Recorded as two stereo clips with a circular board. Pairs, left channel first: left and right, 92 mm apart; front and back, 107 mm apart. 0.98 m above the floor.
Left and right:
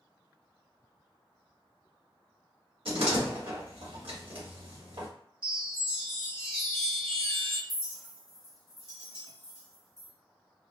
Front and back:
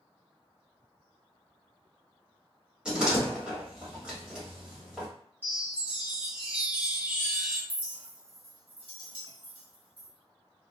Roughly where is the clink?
Behind left.